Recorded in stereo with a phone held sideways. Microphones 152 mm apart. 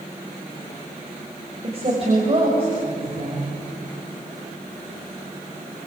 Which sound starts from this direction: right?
A woman speaking, at 1.6 s.